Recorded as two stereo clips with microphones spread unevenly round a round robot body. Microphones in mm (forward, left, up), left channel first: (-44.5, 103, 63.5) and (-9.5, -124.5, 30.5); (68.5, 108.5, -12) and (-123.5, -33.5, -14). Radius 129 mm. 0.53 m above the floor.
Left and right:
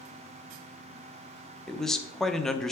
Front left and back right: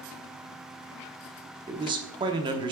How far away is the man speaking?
About 0.7 m.